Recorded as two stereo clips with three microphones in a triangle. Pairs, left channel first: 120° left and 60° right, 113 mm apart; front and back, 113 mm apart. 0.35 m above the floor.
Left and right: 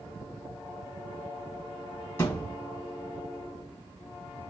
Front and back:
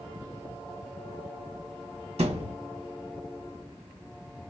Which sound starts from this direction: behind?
A thud, at 2.2 s.